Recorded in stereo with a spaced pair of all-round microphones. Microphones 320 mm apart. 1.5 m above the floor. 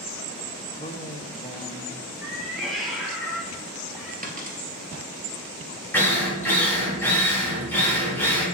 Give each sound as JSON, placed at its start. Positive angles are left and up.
{"t": 0.7, "sound": "a man speaking", "side_deg": 20, "distance_m": 1.0}
{"t": 2.2, "sound": "a cat meowing", "side_deg": 0, "distance_m": 2.0}
{"t": 4.2, "sound": "a dropped coin", "side_deg": -25, "distance_m": 2.0}
{"t": 5.9, "sound": "a drill", "side_deg": 5, "distance_m": 3.0}